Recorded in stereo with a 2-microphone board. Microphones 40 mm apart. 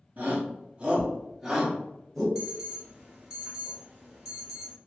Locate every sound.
0.2 s a shout: 45° right (ahead or behind), 0.8 m; by 2.2 s 5° left (ahead or behind), 1.5 m
2.4 s an alarm: 10° right (ahead or behind), 1.4 m